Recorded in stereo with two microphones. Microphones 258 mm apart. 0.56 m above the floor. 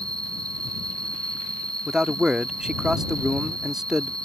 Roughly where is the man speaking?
Centre.